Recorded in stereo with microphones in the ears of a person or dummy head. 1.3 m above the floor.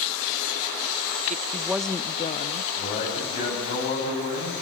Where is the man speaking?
45° left (ahead or behind), 9 m.